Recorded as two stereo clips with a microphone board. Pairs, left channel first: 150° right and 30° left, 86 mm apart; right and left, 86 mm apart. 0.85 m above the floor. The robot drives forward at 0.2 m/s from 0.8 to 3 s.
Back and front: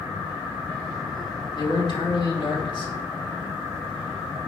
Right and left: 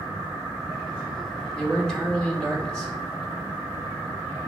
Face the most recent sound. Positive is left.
turn(degrees=-170)